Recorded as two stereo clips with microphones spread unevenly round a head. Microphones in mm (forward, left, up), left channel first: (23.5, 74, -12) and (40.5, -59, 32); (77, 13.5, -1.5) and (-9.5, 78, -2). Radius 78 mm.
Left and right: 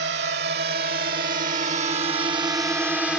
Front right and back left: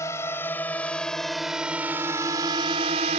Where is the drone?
110° right; by 3.2 s 175° right.